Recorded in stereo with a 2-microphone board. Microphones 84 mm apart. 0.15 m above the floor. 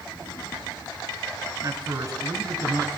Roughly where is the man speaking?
Right.